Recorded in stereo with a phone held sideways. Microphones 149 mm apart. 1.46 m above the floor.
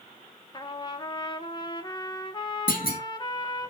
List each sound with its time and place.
0.5 s a trumpet: 30° left (ahead or behind), 1.0 m
2.7 s a clunk: 75° left (ahead or behind), 1.9 m